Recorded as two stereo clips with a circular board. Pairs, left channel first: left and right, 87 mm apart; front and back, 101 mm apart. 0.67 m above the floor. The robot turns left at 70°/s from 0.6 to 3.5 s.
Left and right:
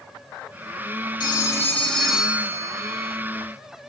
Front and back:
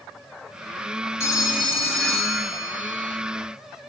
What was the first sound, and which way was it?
A phone ringing, 60° left.